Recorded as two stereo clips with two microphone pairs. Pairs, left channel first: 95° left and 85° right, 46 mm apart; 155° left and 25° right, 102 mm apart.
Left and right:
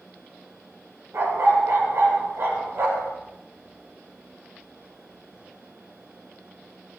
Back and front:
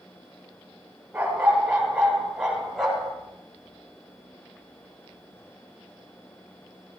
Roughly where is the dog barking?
Right.